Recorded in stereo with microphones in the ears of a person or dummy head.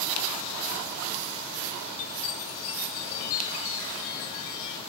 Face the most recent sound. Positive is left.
turn(degrees=55)  # may be behind; listen again after turning